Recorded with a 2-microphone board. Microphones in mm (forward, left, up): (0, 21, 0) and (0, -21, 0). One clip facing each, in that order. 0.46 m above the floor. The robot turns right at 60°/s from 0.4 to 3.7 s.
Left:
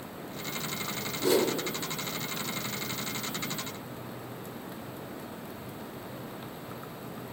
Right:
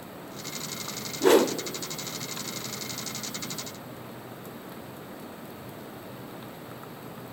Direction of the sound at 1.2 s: 45° right (ahead or behind).